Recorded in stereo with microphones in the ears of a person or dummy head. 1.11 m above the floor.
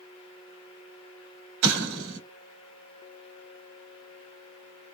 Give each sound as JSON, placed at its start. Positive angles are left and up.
{"t": 1.6, "sound": "an explosion", "side_deg": -55, "distance_m": 2.0}